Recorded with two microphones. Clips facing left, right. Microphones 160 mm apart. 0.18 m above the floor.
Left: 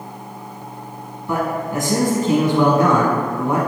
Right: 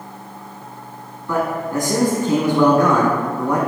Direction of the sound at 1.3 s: 20° left (ahead or behind).